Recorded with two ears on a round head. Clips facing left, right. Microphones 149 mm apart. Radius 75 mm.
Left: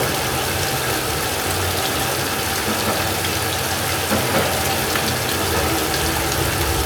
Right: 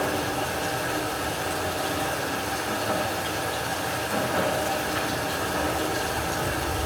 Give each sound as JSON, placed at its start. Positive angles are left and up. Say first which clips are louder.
{"t": 0.0, "sound": "running water", "louder": "left 4 dB", "side_deg": 70, "distance_m": 1.6}